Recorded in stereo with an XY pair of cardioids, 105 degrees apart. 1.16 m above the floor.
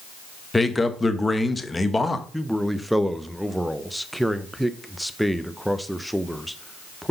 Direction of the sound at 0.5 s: 15° left.